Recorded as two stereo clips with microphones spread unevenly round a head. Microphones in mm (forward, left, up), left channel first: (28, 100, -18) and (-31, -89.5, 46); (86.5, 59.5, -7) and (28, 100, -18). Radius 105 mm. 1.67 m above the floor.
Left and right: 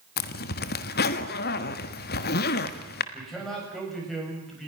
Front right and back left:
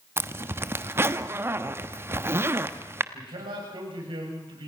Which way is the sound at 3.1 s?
165° left.